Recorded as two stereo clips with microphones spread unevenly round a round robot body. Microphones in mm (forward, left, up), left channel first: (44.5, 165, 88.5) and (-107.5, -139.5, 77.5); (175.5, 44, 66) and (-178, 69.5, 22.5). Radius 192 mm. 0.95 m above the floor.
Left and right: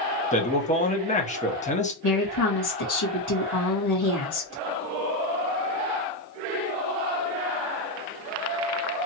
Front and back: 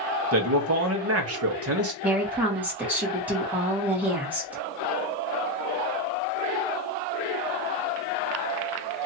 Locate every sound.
0.3 s a man speaking: 130° left, 1.3 m
2.0 s a woman speaking: 90° left, 2 m